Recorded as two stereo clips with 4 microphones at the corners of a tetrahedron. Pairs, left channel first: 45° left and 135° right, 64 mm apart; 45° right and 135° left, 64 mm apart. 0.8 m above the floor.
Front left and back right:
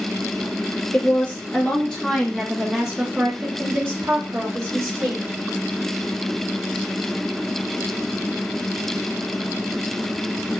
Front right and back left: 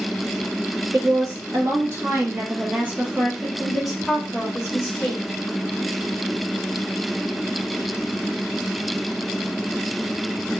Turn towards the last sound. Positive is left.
turn(degrees=-105)